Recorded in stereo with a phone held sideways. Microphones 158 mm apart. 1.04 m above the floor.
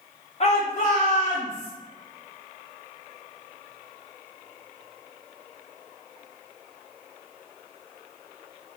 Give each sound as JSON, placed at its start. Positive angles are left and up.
{"t": 0.4, "sound": "a shout", "side_deg": 45, "distance_m": 0.5}